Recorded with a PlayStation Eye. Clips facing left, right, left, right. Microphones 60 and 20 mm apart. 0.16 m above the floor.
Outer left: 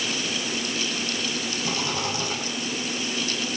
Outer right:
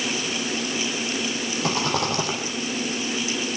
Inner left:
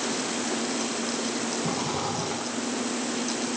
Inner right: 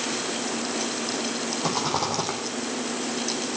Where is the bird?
No bird in this recording.